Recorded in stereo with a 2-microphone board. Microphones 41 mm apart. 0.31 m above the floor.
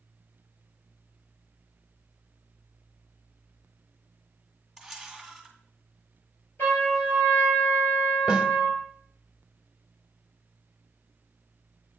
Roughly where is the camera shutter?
Centre.